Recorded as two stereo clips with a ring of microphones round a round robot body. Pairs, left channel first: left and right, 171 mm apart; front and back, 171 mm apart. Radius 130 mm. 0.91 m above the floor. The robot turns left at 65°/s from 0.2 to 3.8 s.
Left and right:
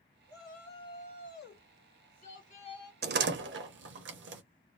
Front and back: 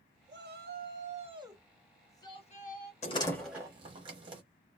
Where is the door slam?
60° right, 0.9 m; by 4.4 s 110° right, 0.9 m.